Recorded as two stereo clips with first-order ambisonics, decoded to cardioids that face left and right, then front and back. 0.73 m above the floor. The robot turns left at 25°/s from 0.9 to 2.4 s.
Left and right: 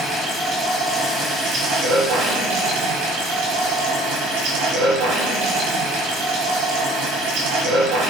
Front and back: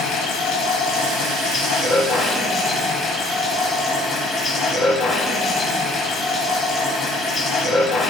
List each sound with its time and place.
0.0 s running water: 30° right, 3.5 m; by 8.1 s 70° right, 3.5 m